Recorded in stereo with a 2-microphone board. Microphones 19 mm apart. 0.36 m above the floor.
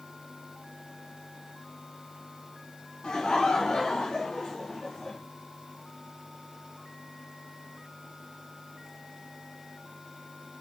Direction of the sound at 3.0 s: 55° left (ahead or behind).